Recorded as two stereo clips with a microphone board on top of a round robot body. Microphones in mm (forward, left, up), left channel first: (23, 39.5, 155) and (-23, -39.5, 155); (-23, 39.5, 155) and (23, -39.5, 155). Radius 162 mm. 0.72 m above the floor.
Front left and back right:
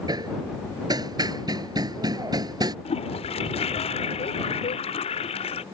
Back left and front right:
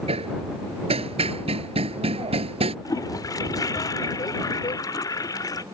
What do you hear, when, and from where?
0.1 s hammering: 70° right
2.9 s a toilet flushing: 65° left